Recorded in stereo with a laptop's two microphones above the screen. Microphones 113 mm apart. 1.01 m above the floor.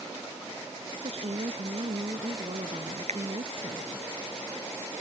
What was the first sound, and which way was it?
A woman speaking, 70° right (ahead or behind).